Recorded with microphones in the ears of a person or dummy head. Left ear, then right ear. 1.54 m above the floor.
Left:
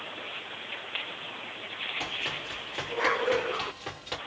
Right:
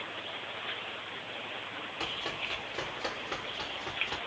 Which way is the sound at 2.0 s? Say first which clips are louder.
Left 2 dB; 5° left (ahead or behind).